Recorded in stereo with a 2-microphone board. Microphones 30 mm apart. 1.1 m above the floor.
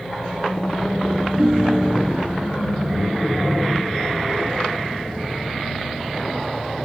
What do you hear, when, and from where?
1.4 s a ringtone: 55° right (ahead or behind)